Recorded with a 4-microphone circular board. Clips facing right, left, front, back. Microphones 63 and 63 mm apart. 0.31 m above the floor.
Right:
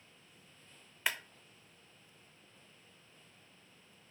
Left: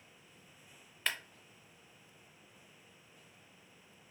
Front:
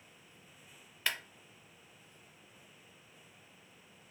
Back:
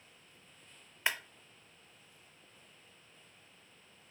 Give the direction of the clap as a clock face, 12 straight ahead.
5 o'clock.